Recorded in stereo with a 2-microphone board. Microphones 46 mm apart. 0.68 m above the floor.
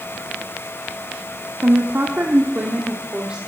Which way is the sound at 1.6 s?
60° right (ahead or behind).